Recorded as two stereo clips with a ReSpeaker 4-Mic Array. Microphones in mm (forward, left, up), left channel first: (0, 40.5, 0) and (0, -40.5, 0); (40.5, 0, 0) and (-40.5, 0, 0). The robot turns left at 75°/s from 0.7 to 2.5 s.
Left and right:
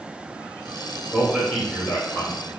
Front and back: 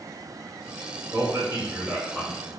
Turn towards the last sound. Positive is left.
turn(degrees=75)